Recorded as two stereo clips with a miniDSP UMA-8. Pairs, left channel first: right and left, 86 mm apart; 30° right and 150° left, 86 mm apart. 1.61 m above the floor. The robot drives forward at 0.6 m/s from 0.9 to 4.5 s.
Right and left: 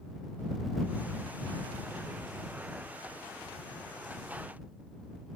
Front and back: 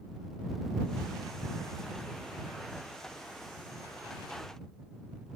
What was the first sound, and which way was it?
Only background noise.